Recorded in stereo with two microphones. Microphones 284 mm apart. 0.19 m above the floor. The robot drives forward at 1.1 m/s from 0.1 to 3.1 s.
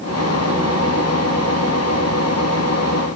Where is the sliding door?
No sliding door in this recording.